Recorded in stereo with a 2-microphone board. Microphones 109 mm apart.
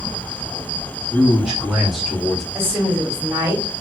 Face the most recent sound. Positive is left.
turn(degrees=-20)  # may be behind; listen again after turning